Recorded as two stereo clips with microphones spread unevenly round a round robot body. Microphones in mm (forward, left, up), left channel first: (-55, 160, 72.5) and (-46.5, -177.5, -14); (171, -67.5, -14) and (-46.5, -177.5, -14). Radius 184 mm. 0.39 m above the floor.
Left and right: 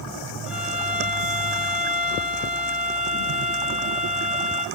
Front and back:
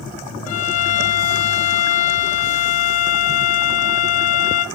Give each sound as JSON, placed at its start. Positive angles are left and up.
{"t": 0.5, "sound": "a violin", "azimuth_deg": -5, "distance_m": 0.6}